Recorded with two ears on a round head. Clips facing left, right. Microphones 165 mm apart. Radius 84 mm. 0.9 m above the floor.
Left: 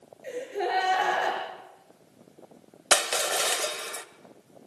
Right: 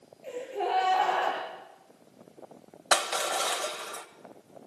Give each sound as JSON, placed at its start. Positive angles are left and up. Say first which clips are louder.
{"t": 0.2, "sound": "a gasp", "louder": "left 1 dB", "side_deg": 15, "distance_m": 8.0}
{"t": 2.9, "sound": "crushing", "louder": "left 2 dB", "side_deg": 25, "distance_m": 1.4}